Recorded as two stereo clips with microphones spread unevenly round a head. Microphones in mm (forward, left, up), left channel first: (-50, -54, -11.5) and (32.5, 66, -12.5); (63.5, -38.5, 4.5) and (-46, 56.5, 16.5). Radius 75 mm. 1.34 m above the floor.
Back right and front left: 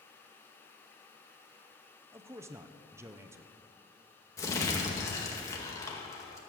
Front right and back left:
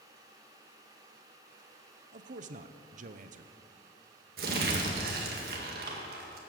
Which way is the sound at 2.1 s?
120° left.